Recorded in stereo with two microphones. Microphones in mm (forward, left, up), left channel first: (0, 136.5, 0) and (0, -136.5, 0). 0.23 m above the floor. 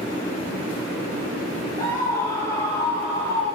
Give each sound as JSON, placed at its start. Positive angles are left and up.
{"t": 1.8, "sound": "a scream", "side_deg": 30, "distance_m": 4.0}